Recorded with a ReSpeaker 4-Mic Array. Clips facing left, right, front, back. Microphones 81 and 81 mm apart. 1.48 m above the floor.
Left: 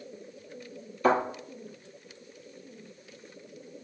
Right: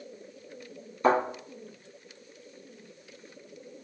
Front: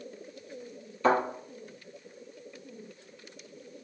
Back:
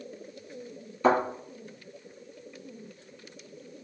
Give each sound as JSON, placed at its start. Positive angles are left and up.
{"t": 1.0, "sound": "a thud", "azimuth_deg": -115, "distance_m": 1.6}